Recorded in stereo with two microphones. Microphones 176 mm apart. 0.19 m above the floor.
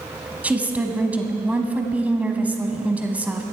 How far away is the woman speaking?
About 1.3 m.